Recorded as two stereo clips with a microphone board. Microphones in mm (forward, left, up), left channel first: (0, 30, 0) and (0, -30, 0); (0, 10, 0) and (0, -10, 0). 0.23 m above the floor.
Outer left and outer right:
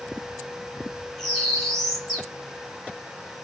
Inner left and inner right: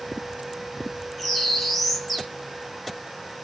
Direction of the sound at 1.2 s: 5° left (ahead or behind).